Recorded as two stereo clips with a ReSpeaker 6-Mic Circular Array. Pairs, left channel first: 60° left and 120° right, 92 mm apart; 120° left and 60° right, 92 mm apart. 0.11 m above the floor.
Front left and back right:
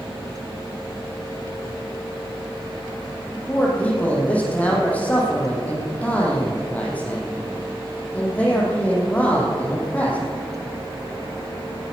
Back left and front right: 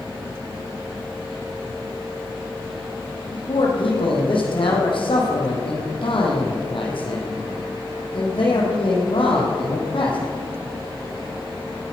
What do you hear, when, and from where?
3.3 s a man speaking: 135° left, 4 m